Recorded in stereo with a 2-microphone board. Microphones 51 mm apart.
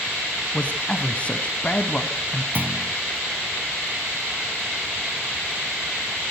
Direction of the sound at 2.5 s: 35° right (ahead or behind).